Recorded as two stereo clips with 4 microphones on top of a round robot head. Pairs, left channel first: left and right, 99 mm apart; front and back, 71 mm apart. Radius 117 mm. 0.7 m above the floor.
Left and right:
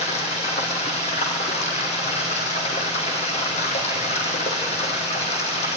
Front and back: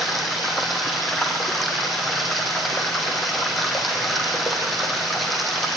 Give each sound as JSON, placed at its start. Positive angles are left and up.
{"t": 0.0, "sound": "running water", "azimuth_deg": 90, "distance_m": 3.5}